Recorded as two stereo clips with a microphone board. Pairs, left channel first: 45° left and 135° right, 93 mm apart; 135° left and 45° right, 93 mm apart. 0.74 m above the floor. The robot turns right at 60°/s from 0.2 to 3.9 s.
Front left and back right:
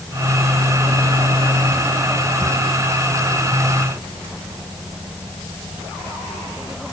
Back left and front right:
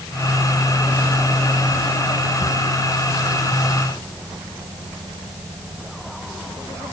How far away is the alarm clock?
No alarm clock in this recording.